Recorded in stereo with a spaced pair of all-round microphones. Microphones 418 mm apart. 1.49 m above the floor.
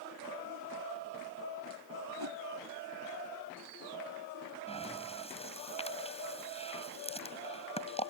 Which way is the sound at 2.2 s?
65° right (ahead or behind).